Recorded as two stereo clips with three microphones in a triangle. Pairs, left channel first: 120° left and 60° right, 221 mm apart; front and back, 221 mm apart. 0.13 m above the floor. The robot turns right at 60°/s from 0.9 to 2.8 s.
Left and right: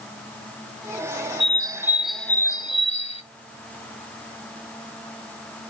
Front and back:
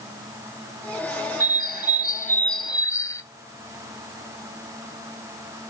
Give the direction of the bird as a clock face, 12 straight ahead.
12 o'clock.